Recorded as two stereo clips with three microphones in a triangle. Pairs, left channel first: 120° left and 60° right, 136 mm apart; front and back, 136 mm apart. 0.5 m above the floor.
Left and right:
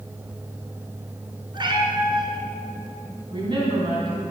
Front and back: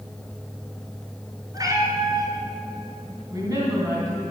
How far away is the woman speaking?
About 3.5 m.